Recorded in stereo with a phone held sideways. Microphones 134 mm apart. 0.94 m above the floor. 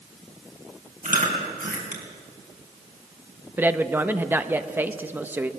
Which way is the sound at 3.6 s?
15° right (ahead or behind).